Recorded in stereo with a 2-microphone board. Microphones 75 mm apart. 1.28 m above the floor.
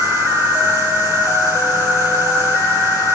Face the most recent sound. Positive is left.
turn(degrees=35)  # may be behind; listen again after turning